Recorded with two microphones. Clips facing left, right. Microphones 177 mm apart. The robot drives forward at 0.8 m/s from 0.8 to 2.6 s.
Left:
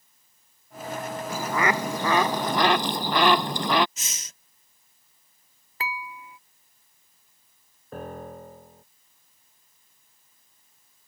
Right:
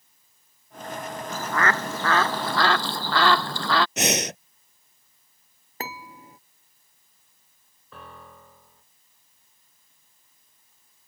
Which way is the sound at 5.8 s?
45° right (ahead or behind).